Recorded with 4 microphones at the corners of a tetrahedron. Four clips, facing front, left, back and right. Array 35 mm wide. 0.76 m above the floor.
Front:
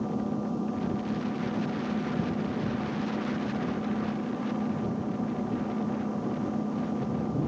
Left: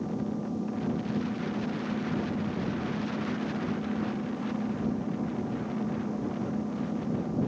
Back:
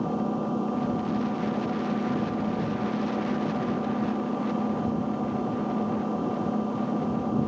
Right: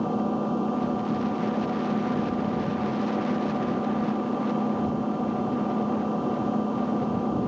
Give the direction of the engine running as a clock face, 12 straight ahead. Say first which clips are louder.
Right 7 dB, back 3 dB; 4 o'clock.